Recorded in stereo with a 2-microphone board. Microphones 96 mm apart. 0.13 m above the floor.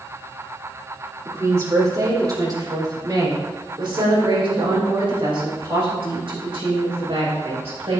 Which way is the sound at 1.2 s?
30° right (ahead or behind).